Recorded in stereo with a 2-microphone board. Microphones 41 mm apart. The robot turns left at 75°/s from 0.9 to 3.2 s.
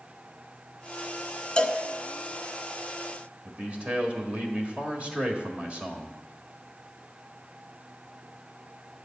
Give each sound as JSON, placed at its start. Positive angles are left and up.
{"t": 1.6, "sound": "a cowbell", "side_deg": 20, "distance_m": 0.6}
{"t": 3.5, "sound": "a man speaking", "side_deg": -30, "distance_m": 1.6}